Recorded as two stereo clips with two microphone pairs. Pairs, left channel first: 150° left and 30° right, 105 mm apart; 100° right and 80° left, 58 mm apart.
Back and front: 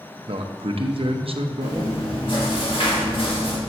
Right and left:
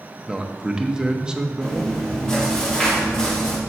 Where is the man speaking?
Straight ahead, 0.9 m.